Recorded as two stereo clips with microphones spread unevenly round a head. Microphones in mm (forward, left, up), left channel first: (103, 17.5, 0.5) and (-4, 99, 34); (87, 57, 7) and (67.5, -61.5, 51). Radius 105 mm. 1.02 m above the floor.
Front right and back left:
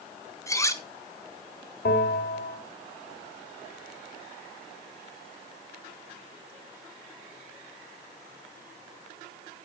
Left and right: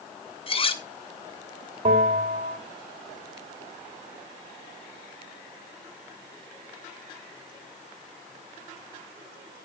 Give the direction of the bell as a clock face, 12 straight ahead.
2 o'clock.